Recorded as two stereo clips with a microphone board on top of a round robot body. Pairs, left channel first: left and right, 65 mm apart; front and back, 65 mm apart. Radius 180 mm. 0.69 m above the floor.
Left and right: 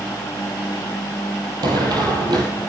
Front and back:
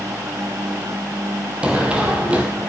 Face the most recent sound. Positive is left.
turn(degrees=-110)